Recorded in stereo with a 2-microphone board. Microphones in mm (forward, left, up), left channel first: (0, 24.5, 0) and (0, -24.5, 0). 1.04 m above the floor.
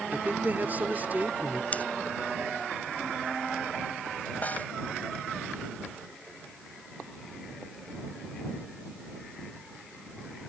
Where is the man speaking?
40° right (ahead or behind).